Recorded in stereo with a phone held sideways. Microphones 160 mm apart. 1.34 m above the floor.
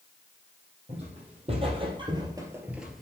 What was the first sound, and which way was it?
Footsteps, 40° right (ahead or behind).